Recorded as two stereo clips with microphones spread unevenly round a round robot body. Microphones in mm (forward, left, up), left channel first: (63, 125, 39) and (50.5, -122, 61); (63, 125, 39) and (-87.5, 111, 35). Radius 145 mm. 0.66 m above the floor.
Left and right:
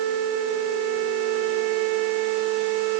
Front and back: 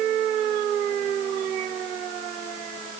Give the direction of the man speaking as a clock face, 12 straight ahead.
No man speaking in this recording.